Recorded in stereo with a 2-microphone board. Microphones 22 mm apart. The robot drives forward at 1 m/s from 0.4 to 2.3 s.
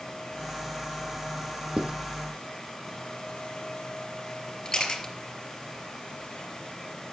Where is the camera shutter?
25° left (ahead or behind), 4 m.